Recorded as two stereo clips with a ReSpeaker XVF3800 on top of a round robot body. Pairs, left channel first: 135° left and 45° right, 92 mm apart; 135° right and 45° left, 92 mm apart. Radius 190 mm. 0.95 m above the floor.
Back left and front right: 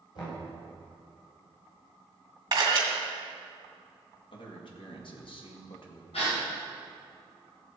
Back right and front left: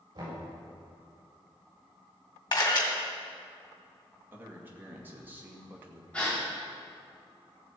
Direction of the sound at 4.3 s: 115° left.